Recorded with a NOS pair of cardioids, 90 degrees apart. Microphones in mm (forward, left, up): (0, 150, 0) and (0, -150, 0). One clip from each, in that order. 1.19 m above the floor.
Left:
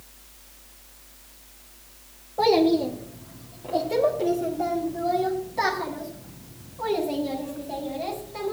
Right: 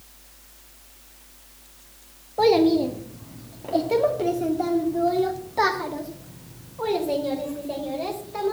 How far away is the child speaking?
About 1.1 m.